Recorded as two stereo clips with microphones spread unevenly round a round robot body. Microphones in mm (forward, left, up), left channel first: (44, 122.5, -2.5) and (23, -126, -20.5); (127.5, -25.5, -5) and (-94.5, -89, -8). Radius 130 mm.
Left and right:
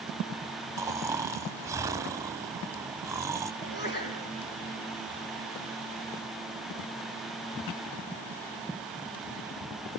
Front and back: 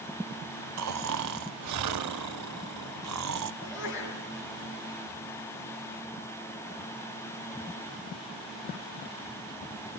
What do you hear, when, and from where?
0.8 s snoring: 175° right, 0.8 m
3.6 s a sneeze: 35° left, 6 m